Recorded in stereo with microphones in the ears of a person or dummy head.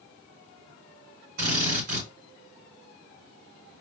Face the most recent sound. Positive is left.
turn(degrees=-55)  # may be behind; listen again after turning